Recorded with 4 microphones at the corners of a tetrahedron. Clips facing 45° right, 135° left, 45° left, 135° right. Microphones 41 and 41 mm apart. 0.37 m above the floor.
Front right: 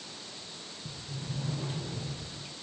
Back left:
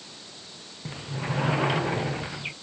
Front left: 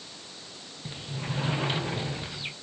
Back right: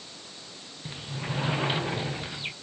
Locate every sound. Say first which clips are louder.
0.8 s a sliding door: back left 10 dB, back right 1 dB; 145° left